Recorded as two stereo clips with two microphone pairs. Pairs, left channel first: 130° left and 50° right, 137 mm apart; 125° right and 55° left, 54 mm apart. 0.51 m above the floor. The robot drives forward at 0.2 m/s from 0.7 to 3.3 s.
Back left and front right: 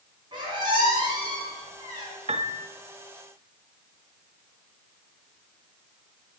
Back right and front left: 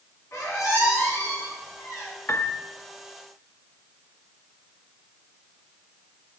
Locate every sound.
0.3 s a squeak: 105° right, 3 m; by 2.1 s 110° right, 3 m
2.3 s a piano: 80° right, 0.5 m; by 2.6 s 90° right, 0.5 m